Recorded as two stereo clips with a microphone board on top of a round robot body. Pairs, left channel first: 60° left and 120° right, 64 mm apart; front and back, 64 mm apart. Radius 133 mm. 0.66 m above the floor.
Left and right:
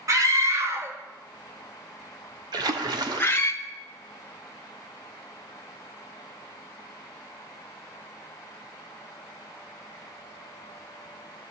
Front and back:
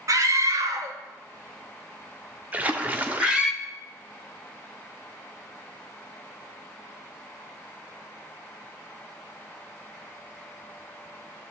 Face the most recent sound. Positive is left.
turn(degrees=-115)